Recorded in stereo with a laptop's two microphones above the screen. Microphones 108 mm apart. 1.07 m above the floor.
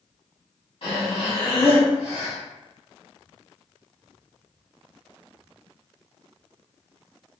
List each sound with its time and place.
0.8 s breathing: 55° left (ahead or behind), 1.9 m